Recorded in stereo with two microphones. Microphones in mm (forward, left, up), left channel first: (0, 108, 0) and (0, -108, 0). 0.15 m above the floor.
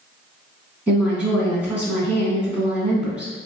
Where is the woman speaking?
5° right (ahead or behind), 1.2 m.